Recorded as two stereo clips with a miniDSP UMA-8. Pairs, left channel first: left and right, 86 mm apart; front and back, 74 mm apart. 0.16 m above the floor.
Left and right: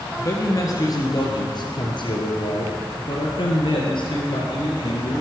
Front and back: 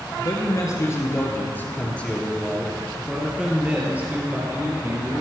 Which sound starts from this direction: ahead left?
A man speaking, at 0.2 s.